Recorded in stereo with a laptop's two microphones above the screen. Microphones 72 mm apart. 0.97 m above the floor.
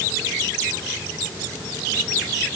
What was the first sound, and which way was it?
Only background noise.